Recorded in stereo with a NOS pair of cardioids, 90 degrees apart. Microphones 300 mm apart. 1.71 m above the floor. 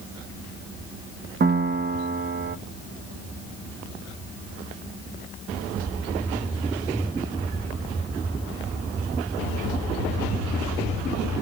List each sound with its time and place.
1.4 s a piano: 30° right, 0.7 m